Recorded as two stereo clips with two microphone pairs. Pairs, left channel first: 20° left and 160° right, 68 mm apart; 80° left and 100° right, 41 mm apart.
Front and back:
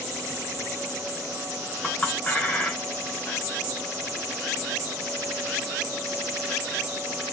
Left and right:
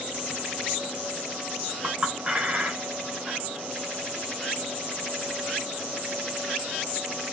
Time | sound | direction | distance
1.8 | a clink | 50° right | 0.7 m